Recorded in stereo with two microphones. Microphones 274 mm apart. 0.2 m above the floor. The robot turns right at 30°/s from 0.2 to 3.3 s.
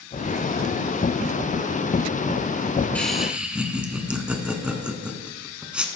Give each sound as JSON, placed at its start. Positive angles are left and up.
{"t": 3.0, "sound": "laughter", "side_deg": 5, "distance_m": 1.6}